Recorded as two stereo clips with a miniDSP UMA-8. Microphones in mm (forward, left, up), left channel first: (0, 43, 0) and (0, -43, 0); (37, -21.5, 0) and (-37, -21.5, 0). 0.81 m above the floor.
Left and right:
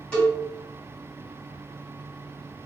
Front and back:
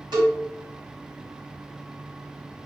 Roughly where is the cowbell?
Behind.